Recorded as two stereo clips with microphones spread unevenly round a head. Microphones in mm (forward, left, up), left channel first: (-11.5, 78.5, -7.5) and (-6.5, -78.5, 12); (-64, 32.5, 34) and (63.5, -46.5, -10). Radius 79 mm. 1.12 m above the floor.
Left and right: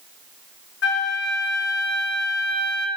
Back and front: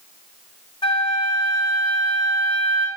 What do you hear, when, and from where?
0.8 s a flute: 80° left, 3 m